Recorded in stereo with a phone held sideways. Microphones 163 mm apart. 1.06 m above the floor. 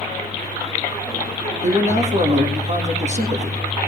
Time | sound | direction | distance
1.6 | a man speaking | 45° right (ahead or behind) | 1.6 m